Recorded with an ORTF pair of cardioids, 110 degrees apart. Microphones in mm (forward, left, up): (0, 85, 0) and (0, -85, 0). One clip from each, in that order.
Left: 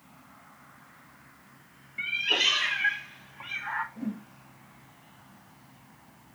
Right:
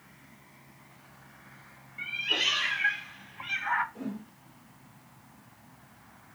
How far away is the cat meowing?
About 1.0 m.